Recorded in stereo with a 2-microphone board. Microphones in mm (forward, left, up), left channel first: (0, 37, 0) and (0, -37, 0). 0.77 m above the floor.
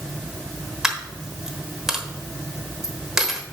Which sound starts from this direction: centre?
A dropped coin, at 0.8 s.